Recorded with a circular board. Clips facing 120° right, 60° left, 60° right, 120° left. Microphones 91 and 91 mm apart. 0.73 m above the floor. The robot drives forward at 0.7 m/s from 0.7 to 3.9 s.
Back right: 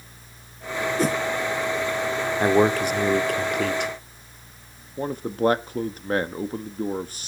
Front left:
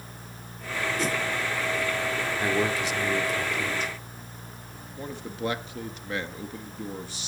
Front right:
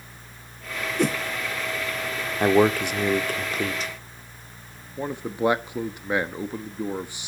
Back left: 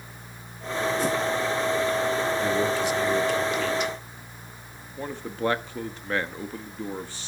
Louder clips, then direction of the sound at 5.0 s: Back right 9 dB, front right 4 dB; 130° right.